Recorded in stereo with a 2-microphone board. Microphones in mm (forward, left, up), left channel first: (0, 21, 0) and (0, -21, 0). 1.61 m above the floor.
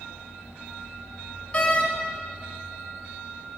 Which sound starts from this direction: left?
A door slam, at 1.5 s.